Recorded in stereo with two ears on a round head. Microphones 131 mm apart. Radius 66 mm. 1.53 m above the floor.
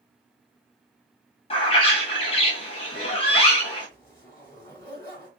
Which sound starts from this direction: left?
A bird, at 1.5 s.